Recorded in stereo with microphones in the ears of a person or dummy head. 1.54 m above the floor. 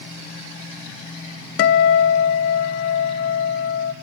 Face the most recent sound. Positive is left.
turn(degrees=60)  # may be behind; listen again after turning